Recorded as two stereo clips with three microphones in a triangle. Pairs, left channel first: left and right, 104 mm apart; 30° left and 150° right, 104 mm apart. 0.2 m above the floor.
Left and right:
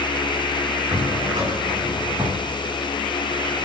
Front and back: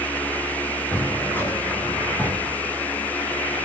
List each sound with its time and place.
0.9 s a drawer: 40° right, 8 m